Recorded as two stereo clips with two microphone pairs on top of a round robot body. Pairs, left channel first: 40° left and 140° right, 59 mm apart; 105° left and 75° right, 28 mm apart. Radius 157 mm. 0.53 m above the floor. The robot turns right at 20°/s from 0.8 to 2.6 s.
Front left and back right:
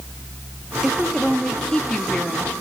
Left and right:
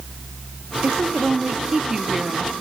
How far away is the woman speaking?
About 1.3 m.